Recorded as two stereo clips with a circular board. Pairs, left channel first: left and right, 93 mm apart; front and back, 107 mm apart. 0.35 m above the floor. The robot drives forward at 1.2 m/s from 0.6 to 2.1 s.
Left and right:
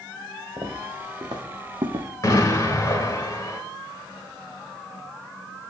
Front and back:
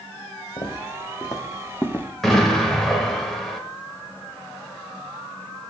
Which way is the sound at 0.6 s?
40° right.